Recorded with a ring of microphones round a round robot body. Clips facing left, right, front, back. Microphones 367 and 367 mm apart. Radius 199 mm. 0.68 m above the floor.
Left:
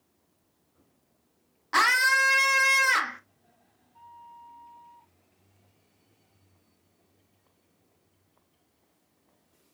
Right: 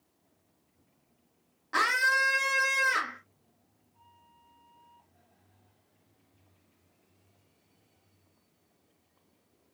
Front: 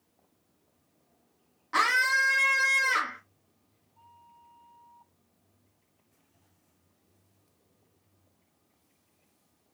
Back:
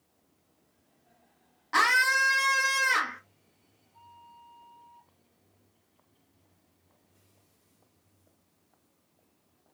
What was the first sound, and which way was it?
A scream, 115° left.